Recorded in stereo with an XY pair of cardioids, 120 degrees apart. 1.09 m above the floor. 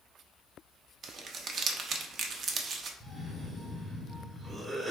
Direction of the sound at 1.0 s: 50° right.